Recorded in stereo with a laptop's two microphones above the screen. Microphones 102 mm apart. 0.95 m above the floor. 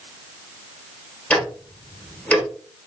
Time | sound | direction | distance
1.3 | ticking | 15° left (ahead or behind) | 1.1 m